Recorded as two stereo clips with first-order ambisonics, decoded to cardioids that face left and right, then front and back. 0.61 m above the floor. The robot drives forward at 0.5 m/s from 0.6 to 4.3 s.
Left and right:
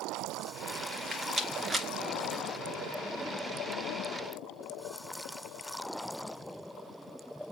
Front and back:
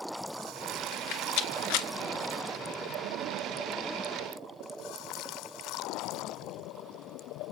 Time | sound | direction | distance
0.9 | a rattle | 10° right | 1.8 m